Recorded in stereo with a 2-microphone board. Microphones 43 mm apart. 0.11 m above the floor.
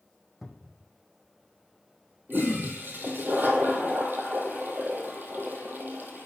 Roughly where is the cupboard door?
Centre.